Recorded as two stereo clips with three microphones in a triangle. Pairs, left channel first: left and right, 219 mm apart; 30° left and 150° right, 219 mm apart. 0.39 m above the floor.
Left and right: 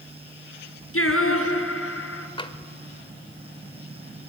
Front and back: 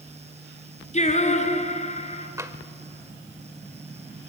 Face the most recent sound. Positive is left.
turn(degrees=145)